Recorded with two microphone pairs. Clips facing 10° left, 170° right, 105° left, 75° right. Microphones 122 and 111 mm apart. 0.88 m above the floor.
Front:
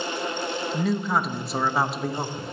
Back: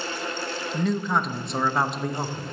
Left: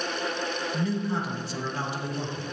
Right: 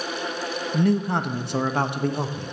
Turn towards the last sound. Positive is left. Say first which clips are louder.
# back 1 dB, right 9 dB
turn(degrees=-80)